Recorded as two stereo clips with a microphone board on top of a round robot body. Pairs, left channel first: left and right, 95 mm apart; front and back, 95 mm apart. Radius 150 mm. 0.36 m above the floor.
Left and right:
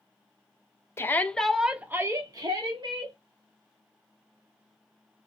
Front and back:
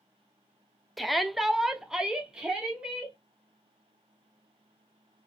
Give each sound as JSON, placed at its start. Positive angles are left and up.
{"t": 1.0, "sound": "a shout", "azimuth_deg": 90, "distance_m": 0.9}